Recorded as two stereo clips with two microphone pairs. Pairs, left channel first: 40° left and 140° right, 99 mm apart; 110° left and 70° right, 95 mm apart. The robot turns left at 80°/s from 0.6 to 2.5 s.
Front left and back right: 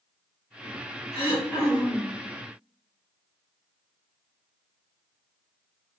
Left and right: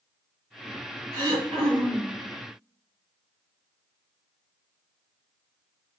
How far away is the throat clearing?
About 1.9 m.